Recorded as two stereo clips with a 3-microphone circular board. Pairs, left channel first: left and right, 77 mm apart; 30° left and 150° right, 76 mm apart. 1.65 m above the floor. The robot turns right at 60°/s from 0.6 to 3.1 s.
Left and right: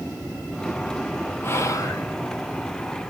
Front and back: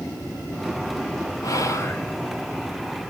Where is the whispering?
45° left, 0.7 m; by 2.1 s 80° left, 0.7 m.